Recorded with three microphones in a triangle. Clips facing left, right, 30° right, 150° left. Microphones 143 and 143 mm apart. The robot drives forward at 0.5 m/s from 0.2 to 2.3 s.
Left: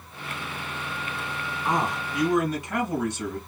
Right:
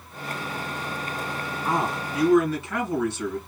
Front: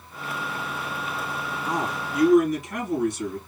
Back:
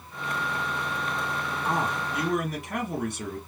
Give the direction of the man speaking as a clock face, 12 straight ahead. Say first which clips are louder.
Even, even; 7 o'clock.